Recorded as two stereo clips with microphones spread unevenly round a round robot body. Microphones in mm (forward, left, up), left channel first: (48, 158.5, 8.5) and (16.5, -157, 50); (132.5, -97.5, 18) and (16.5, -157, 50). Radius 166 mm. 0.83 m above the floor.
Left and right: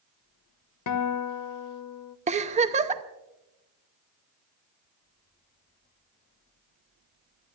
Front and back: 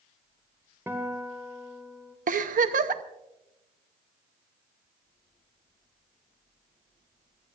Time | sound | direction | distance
0.9 | a guitar | 125° left | 0.9 m
2.3 | a giggle | 165° right | 0.7 m